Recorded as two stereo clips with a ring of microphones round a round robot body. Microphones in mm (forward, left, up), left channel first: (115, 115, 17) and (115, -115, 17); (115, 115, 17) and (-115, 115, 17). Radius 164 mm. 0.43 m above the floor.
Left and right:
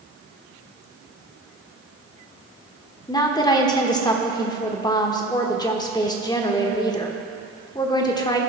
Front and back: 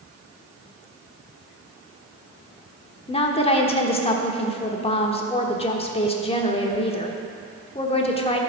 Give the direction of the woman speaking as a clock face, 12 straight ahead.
11 o'clock.